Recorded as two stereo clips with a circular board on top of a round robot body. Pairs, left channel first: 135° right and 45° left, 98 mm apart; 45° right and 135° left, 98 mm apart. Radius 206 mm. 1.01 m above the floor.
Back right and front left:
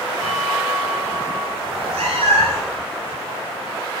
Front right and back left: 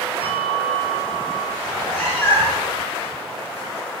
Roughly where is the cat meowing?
Ahead left.